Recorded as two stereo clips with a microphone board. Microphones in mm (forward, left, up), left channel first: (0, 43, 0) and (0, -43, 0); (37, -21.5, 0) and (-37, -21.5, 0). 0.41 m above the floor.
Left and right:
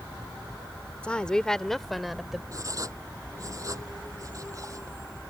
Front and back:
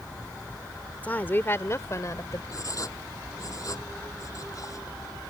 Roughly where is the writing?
Ahead right.